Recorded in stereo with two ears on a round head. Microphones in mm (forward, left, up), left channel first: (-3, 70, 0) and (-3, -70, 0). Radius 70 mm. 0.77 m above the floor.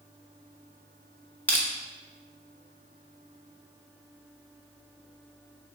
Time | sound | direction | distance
1.5 | crushing | 10° left (ahead or behind) | 1.6 m